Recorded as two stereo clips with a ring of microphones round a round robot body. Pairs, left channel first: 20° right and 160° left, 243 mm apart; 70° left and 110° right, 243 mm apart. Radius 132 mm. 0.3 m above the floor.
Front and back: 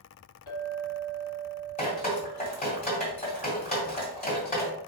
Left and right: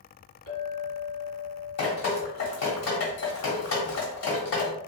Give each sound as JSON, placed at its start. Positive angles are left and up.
{"t": 0.5, "sound": "a clink", "azimuth_deg": 50, "distance_m": 1.6}
{"t": 1.8, "sound": "dripping", "azimuth_deg": 35, "distance_m": 1.9}